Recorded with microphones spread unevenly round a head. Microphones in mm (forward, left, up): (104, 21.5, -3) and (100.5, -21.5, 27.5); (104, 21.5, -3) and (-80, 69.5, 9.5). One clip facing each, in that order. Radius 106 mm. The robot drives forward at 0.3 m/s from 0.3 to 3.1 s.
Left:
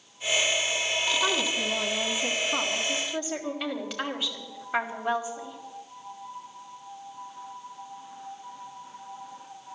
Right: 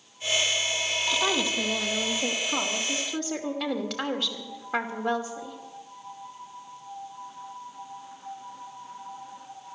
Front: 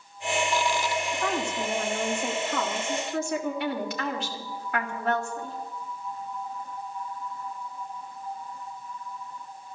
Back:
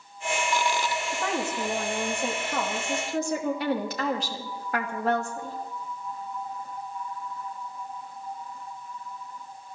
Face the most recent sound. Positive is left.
turn(degrees=-135)